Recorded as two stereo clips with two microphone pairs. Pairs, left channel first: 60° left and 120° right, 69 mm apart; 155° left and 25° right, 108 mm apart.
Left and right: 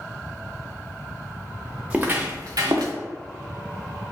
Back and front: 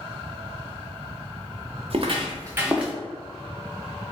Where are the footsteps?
50° right, 0.6 m; by 2.9 s 115° right, 0.7 m.